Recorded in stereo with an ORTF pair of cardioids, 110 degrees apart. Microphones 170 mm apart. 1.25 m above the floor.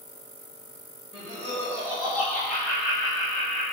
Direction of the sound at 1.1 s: 35° left.